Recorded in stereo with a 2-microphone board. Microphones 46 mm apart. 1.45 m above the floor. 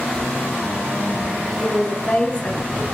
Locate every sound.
1.6 s a woman speaking: 35° left (ahead or behind), 2.5 m; by 2.8 s 25° left (ahead or behind), 1.7 m